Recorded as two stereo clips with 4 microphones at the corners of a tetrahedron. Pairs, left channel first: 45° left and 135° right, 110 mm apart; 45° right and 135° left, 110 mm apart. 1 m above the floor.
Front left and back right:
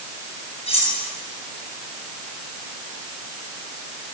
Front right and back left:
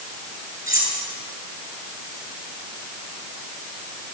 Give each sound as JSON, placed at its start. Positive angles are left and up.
{"t": 0.7, "sound": "cutlery clinking", "azimuth_deg": 75, "distance_m": 9.0}